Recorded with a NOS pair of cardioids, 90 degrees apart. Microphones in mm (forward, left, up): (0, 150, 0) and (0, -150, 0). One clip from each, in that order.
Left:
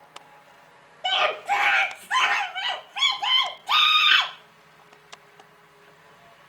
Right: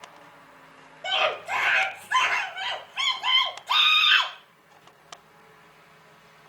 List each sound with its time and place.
1.0 s a scream: 30° left, 2.0 m